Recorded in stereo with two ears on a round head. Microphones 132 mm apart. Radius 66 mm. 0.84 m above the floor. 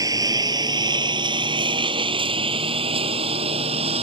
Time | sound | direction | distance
0.0 | a lawn mower | 25° right (ahead or behind) | ?